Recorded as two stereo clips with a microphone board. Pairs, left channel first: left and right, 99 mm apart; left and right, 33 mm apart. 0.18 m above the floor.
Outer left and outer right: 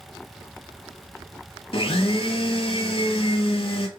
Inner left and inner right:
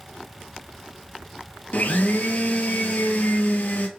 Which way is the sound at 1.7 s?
70° left (ahead or behind).